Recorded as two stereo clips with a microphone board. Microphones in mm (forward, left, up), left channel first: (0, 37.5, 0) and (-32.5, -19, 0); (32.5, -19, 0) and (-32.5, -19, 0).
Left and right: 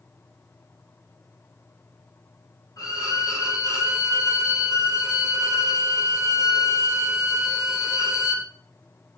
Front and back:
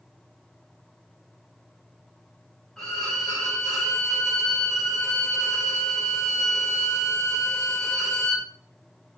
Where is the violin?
85° left, 7 m.